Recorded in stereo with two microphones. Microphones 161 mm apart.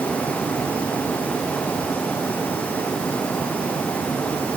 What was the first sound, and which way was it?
Only background noise.